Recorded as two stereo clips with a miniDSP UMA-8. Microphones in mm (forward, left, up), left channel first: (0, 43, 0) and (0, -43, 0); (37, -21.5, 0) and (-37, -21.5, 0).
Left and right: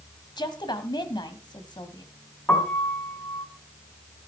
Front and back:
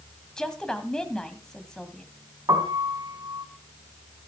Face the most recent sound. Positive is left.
turn(degrees=155)